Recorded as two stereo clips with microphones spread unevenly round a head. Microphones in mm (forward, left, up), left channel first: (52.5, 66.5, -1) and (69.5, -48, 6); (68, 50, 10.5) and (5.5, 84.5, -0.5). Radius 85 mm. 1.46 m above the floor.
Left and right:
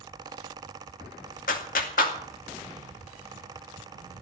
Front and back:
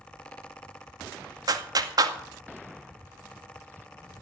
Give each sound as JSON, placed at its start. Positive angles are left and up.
{"t": 1.5, "sound": "a clap", "azimuth_deg": 120, "distance_m": 2.0}